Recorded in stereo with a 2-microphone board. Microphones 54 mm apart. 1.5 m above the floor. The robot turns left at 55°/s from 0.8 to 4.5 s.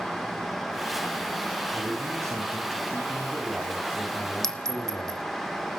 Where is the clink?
5° left (ahead or behind), 0.9 m; by 5.2 s 10° left (ahead or behind), 0.9 m.